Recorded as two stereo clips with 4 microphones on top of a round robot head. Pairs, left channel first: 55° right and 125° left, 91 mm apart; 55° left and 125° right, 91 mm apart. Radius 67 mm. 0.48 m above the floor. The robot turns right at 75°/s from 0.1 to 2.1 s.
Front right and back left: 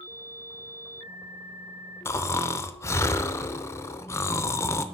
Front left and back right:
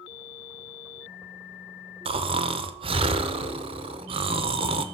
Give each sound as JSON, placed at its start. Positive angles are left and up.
{"t": 2.0, "sound": "snoring", "azimuth_deg": -115, "distance_m": 0.6}